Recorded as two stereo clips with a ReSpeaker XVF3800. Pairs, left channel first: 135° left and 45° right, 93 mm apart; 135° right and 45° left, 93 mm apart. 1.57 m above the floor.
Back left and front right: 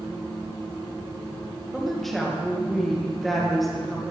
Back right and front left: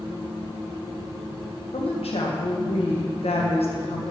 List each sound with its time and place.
1.7 s a woman speaking: 135° right, 1.6 m